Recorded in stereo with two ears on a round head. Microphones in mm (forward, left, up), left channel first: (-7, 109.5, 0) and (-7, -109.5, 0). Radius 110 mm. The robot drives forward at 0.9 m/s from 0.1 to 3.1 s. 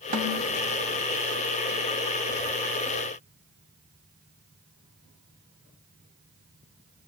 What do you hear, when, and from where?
0.1 s a snare drum: 35° right (ahead or behind), 1.9 m